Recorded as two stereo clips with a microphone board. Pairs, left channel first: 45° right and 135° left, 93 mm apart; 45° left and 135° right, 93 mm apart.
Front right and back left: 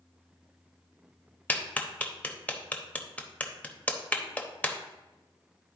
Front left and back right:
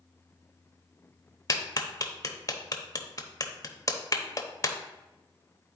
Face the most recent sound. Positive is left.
turn(degrees=20)